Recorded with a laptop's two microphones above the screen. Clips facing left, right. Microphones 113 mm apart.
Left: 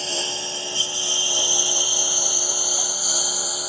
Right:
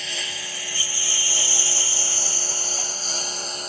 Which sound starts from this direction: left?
A lawn mower, at 0.0 s.